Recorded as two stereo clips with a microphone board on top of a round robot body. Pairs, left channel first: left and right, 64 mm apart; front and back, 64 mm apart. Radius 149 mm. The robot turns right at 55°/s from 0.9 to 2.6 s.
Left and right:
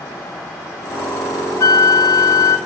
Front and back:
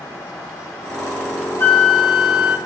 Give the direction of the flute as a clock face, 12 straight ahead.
10 o'clock.